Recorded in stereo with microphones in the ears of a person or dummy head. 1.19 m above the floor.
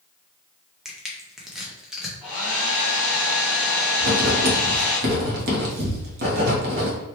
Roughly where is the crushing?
Centre.